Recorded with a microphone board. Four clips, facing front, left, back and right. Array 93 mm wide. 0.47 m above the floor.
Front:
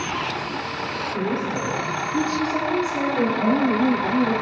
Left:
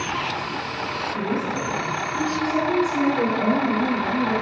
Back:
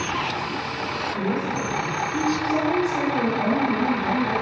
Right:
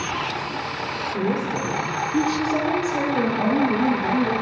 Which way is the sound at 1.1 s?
80° right.